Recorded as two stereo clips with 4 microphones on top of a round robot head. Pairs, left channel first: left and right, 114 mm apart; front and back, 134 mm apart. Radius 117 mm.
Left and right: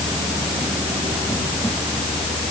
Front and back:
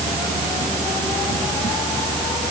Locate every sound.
Only background noise.